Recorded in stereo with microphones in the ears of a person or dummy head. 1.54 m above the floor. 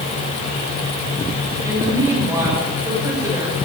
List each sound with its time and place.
1.6 s a woman speaking: 15° right (ahead or behind), 6.5 m